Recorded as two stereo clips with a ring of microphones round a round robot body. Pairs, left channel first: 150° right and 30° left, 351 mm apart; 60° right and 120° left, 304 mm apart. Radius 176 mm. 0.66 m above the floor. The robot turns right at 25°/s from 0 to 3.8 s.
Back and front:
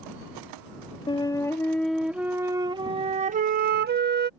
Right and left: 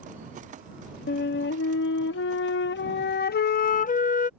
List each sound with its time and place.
1.1 s a flute: 80° right; by 4.3 s 15° right